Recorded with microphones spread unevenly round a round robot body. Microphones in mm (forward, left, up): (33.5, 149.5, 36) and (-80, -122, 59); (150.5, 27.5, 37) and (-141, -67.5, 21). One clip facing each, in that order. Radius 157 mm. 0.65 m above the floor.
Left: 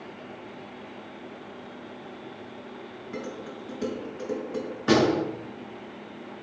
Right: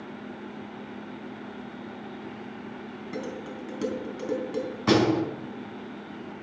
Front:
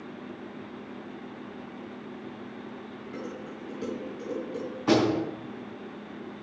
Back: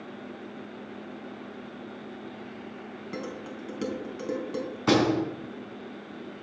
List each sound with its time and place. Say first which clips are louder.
3.1 s dishes clattering: right 1 dB, back 2 dB; 145° right, 3.5 m
4.9 s a door slam: even, even; 105° right, 6 m